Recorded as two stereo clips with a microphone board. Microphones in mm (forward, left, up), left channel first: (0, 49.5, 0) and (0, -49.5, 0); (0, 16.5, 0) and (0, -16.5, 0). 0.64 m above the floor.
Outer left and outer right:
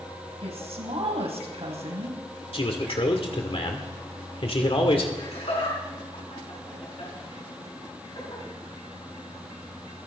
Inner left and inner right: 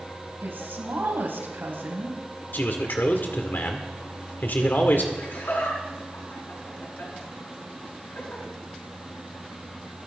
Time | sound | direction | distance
0.4 | a woman speaking | 80° right | 4 m
2.5 | a man speaking | 65° left (ahead or behind) | 1.9 m
5.2 | laughter | 80° left | 8.5 m